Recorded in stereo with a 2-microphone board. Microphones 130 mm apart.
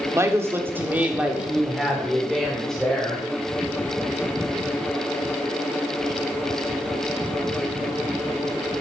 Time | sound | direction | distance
0.1 | a woman speaking | 20° right (ahead or behind) | 1.4 m